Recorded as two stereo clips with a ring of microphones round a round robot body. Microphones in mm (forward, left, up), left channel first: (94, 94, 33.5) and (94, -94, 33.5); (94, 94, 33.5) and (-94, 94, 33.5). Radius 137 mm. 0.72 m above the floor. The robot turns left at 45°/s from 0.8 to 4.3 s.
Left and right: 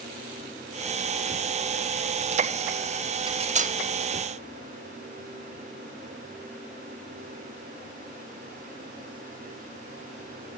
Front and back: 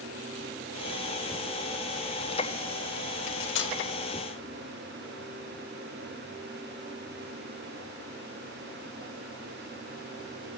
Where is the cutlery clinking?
20° right, 0.8 m; by 3.8 s 45° right, 0.8 m.